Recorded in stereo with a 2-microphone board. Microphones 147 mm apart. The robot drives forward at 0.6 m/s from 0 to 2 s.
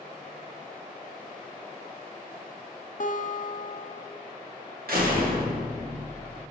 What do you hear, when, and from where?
3.0 s a guitar: 60° left (ahead or behind), 0.6 m
4.9 s a door slam: 85° right, 1.5 m